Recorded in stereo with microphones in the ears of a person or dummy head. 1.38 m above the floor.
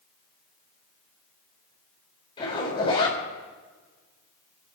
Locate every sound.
2.4 s a zipper: 25° left (ahead or behind), 4.5 m